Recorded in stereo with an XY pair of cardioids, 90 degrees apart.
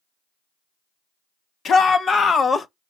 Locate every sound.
1.6 s a shout: 65° left, 1.5 m; by 2.7 s 35° left, 0.6 m